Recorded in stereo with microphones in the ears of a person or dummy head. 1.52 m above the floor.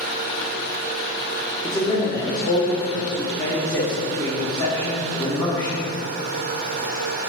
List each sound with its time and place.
1.6 s a man speaking: 20° left (ahead or behind), 1.3 m